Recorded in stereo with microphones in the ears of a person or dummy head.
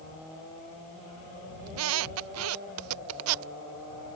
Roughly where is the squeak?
Right.